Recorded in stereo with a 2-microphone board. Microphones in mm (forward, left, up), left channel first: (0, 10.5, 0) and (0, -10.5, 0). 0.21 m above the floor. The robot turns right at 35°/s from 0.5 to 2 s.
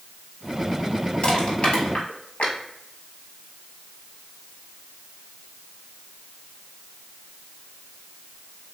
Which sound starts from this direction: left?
Crushing, at 1.2 s.